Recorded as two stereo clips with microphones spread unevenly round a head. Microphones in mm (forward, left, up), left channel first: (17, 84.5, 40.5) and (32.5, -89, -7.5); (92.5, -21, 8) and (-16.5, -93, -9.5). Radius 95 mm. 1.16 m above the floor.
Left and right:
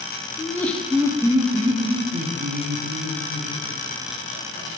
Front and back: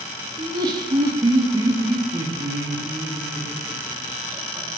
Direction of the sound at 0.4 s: 175° left.